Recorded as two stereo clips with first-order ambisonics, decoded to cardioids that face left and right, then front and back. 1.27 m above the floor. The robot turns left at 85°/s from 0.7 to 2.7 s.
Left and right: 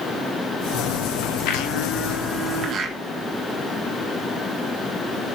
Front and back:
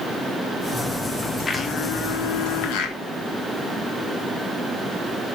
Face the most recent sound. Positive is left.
turn(degrees=-30)